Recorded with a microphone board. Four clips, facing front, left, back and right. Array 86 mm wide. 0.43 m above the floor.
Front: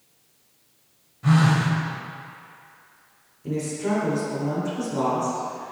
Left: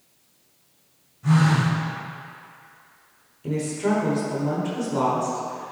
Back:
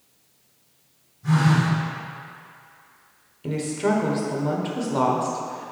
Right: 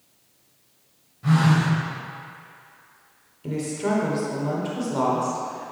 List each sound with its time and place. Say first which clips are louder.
1.2 s a phone buzzing: even, front 1 dB; 15° right, 1.8 m
3.4 s a woman speaking: left 2 dB, back 3 dB; 175° right, 1.1 m